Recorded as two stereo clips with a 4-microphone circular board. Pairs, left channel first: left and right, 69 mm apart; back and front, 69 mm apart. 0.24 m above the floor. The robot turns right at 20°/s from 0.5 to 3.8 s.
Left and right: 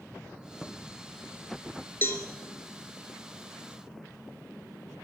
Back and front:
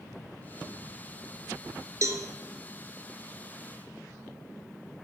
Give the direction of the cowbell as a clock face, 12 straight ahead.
11 o'clock.